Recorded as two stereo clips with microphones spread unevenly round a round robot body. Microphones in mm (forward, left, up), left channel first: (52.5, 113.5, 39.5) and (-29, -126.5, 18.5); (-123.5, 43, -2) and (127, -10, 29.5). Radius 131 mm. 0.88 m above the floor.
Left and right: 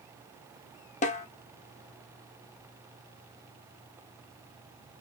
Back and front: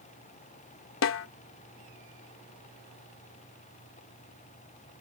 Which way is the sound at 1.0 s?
130° left.